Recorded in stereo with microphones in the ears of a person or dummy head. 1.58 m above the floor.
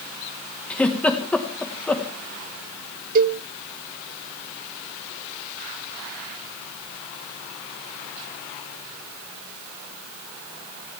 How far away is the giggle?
About 1.7 m.